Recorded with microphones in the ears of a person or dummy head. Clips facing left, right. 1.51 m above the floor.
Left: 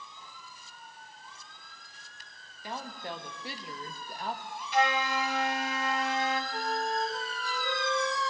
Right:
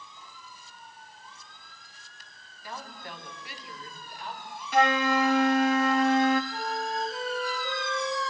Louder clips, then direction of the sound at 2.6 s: Left 3 dB; 25° left (ahead or behind).